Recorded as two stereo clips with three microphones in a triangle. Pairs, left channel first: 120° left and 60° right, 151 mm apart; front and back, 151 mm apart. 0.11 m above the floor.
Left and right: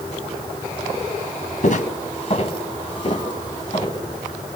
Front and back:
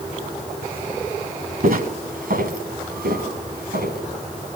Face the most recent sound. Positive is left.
turn(degrees=180)